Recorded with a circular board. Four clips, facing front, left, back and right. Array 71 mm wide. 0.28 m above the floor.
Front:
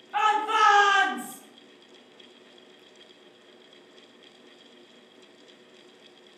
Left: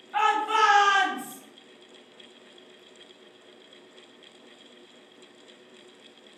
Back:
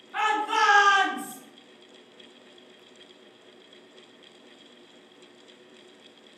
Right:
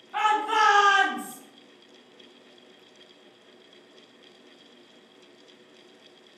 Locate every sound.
0.1 s a shout: 30° left, 1.7 m; by 1.4 s 5° right, 1.5 m